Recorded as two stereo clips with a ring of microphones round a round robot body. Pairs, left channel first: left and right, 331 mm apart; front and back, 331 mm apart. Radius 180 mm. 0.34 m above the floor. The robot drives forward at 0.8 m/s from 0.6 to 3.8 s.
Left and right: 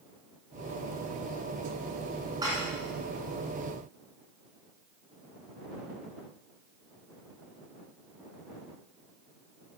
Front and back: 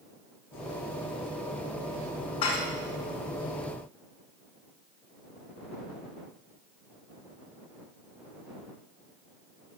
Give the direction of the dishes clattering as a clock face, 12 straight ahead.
12 o'clock.